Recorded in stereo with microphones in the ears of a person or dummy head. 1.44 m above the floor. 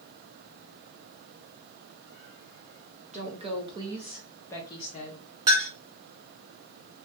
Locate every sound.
3.1 s a woman speaking: 30° right (ahead or behind), 1.1 m; by 5.2 s 50° left (ahead or behind), 0.7 m
5.5 s a clink: 20° right (ahead or behind), 0.6 m